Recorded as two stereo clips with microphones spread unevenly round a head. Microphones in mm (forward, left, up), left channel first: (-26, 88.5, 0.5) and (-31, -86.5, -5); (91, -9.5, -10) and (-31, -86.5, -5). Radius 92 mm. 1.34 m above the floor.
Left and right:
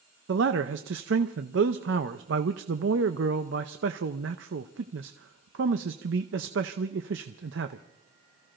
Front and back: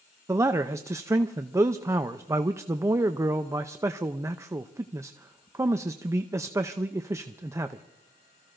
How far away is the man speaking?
About 0.6 m.